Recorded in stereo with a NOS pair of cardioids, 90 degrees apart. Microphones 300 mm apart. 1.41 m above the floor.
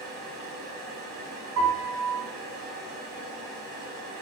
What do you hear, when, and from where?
0.0 s a fan: 65° right, 1.2 m
1.6 s a piano: 65° right, 1.4 m